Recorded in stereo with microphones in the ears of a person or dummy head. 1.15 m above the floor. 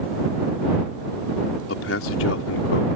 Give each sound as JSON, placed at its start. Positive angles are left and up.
{"t": 1.7, "sound": "a man speaking", "side_deg": 75}